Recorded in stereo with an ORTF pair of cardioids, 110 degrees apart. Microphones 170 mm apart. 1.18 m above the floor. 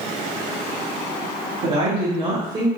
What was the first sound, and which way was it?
A woman speaking, 40° right.